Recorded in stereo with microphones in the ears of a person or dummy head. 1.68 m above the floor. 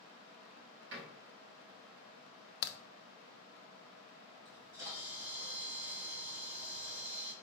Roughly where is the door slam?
Right.